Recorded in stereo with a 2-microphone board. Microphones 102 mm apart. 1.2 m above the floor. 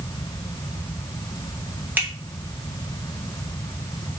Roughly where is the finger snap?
Centre.